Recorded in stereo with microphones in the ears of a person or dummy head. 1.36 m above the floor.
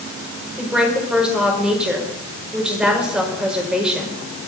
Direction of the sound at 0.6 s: 5° right (ahead or behind).